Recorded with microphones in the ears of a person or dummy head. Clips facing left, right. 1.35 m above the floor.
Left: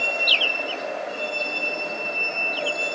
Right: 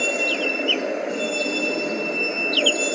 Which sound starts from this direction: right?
A vehicle, at 0.0 s.